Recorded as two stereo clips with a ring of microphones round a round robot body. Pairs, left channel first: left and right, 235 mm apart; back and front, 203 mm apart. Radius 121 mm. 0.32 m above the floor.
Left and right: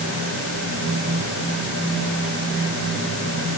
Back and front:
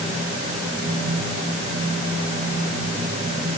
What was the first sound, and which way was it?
Only background noise.